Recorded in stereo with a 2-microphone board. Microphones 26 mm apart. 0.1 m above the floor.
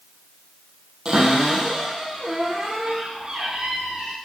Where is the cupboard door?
30° right (ahead or behind), 3 m.